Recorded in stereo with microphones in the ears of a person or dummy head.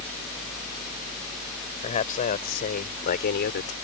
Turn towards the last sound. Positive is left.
turn(degrees=55)  # may be behind; listen again after turning